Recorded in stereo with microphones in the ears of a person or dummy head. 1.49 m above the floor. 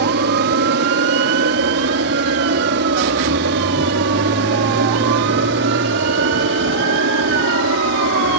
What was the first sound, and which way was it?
An aircraft, 60° right (ahead or behind).